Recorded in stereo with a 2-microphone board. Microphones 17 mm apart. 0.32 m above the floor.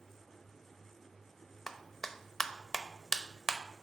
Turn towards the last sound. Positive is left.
turn(degrees=15)  # may be behind; listen again after turning